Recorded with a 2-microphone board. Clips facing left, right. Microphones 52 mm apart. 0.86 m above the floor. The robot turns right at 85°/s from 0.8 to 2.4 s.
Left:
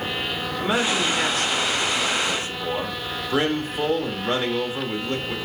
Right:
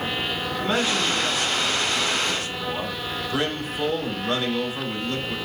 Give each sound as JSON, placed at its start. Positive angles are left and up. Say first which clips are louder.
{"t": 0.6, "sound": "a man speaking", "louder": "left 2 dB", "azimuth_deg": 15, "distance_m": 2.5}